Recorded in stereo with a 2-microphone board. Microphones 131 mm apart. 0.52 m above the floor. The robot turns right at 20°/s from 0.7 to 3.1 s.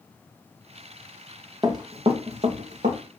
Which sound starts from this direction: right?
Running footsteps, at 1.6 s.